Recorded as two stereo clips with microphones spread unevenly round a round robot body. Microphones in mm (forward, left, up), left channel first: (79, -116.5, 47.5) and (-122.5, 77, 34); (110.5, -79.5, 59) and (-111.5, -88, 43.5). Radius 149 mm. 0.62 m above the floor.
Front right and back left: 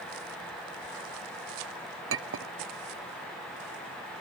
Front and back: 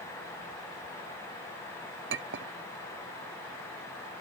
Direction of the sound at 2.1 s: 165° left.